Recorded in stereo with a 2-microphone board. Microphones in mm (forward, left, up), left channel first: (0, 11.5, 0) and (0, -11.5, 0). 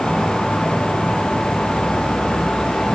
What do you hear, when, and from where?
0.0 s an insect: 70° right (ahead or behind), 0.7 m